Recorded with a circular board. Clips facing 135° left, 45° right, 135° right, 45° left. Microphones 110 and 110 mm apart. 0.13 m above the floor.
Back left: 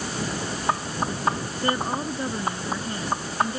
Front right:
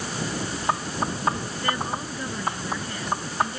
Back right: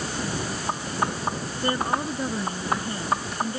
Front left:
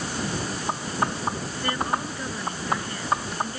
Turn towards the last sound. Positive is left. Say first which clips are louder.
# back left 3 dB, back right 2 dB
turn(degrees=180)